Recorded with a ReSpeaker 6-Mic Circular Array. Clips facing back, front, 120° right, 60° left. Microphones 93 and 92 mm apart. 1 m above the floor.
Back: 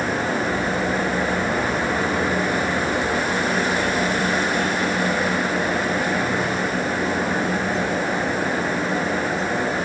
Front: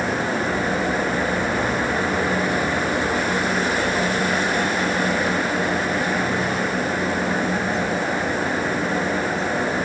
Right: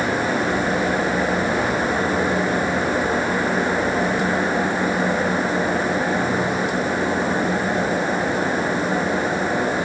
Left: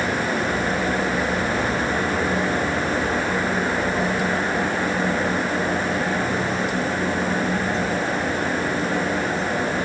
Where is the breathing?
I don't hear breathing.